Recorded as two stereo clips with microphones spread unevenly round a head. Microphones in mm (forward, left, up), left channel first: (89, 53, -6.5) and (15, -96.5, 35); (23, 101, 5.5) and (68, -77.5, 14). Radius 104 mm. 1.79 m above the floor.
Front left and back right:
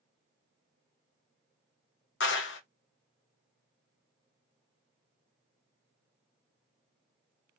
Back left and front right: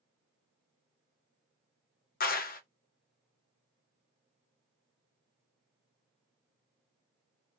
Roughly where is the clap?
Left.